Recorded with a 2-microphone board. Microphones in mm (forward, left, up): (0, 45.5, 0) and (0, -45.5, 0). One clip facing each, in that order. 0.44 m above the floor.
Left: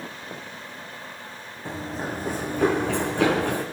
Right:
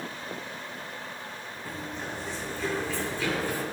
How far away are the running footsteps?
About 1.8 m.